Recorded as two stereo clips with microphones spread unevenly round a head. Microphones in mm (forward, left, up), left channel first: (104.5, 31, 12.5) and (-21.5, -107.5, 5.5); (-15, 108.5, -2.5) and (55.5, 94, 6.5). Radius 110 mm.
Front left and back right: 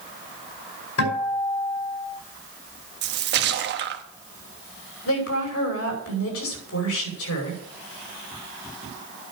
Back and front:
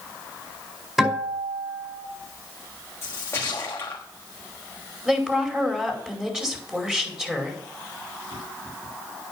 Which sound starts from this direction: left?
A guitar, at 1.0 s.